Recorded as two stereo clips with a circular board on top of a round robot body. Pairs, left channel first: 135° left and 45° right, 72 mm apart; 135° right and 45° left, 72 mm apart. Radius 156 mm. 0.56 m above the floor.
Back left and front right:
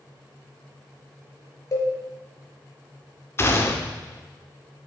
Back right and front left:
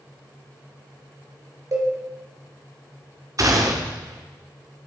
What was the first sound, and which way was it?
A cowbell, 90° left.